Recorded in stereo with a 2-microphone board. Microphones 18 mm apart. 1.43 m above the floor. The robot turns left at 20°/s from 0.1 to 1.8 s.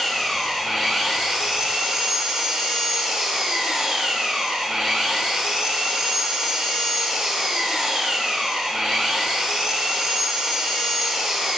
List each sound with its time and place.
0.0 s an engine running: 5° right, 5 m; by 11.6 s 40° right, 5 m